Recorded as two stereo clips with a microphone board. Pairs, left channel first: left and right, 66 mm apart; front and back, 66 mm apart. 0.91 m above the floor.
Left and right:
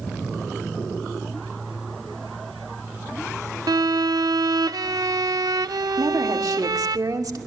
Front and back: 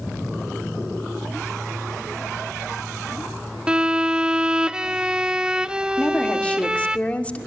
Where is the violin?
105° right, 0.8 m.